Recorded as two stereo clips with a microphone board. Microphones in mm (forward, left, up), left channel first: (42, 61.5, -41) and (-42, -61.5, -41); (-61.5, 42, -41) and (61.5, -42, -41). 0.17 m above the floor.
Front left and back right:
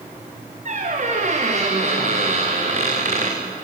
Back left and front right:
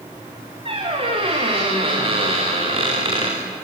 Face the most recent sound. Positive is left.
turn(degrees=-85)